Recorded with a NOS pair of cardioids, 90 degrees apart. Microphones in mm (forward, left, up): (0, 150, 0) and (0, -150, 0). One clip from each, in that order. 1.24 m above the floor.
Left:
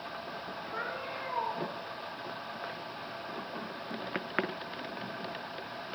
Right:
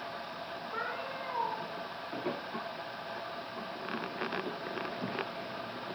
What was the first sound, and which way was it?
A cat meowing, 5° right.